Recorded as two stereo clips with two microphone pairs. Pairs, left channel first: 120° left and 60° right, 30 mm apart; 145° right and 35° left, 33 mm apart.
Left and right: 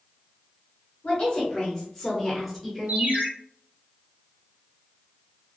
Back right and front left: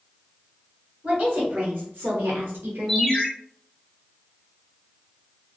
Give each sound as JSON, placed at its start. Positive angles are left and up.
{"t": 1.0, "sound": "a woman speaking", "azimuth_deg": 60, "distance_m": 1.5}
{"t": 2.9, "sound": "a ringtone", "azimuth_deg": -60, "distance_m": 0.8}